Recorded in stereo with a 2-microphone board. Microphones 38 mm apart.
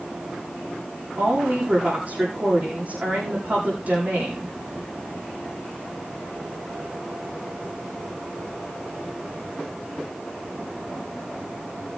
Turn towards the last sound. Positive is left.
turn(degrees=-45)  # may be behind; listen again after turning